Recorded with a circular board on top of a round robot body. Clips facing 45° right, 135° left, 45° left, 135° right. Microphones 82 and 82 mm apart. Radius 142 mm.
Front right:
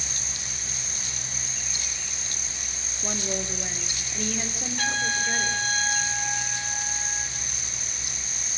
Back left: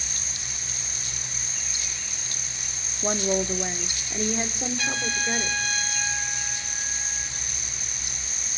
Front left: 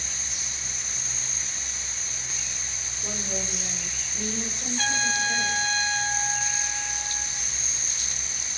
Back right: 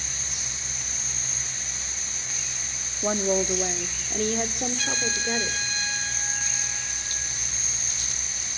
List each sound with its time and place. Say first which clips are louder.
3.0 s a woman speaking: back left 7 dB, back right 11 dB; 170° right, 1.8 m; by 5.6 s 155° right, 3.5 m
4.8 s a trumpet: front right 4 dB, front left 3 dB; straight ahead, 5.5 m